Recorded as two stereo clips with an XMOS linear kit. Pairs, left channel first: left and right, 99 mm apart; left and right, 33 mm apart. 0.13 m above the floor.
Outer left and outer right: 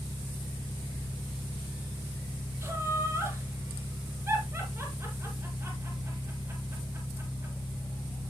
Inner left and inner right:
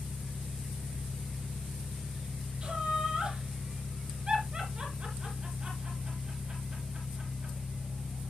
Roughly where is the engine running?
Centre.